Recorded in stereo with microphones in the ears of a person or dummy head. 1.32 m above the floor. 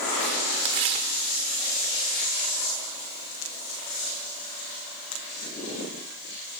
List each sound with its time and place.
0.7 s tearing paper: 30° right (ahead or behind), 1.1 m